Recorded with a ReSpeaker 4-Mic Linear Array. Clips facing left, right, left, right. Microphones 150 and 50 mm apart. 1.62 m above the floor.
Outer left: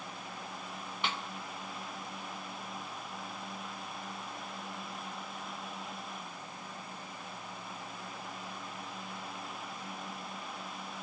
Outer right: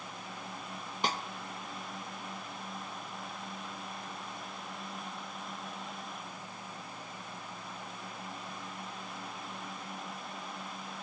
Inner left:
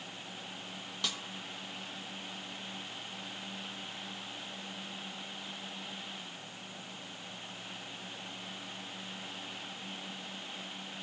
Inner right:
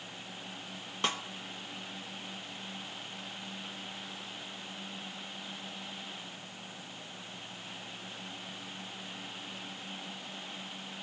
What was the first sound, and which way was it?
A snare drum, 40° right (ahead or behind).